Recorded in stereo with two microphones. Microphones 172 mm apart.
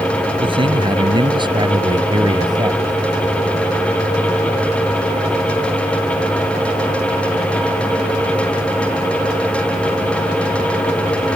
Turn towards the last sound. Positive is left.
turn(degrees=-25)  # may be behind; listen again after turning